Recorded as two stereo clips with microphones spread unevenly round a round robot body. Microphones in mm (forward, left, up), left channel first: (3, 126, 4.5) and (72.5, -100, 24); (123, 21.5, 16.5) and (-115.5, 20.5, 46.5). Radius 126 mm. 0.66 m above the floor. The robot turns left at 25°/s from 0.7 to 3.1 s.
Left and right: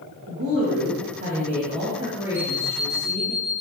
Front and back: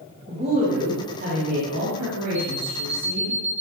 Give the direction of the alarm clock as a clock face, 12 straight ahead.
3 o'clock.